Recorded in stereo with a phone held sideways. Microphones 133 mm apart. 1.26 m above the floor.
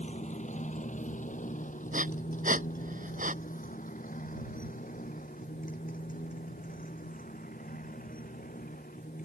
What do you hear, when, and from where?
0.0 s a motorcycle: 55° left (ahead or behind); by 9.2 s 80° left
1.9 s breathing: 70° right (ahead or behind)